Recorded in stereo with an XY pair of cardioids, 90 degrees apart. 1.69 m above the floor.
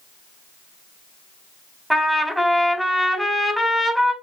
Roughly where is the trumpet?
Ahead.